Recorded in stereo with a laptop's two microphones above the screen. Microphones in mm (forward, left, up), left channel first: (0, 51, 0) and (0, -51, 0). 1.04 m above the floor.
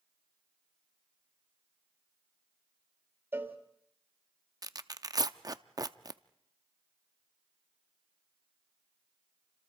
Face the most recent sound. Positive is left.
turn(degrees=-40)  # may be behind; listen again after turning